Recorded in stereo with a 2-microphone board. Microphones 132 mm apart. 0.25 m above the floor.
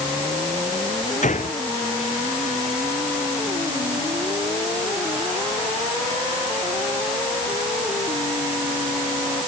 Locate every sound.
1.2 s a gunshot: 70° left (ahead or behind)